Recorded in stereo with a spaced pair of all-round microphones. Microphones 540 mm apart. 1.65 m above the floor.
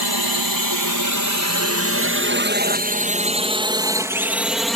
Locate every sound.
0.0 s a drone: 40° right (ahead or behind); by 4.8 s centre (ahead or behind)